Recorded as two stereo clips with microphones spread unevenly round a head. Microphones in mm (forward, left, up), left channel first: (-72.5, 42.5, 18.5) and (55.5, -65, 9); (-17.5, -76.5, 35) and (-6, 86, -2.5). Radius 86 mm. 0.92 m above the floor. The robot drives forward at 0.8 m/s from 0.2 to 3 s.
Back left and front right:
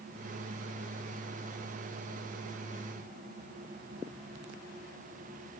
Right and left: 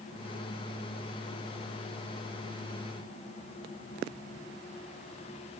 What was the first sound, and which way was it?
Only background noise.